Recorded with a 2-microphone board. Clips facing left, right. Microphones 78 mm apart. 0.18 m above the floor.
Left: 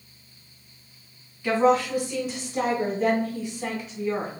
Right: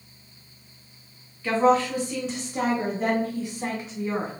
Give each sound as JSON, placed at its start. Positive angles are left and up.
{"t": 1.4, "sound": "a woman speaking", "side_deg": 20, "distance_m": 1.7}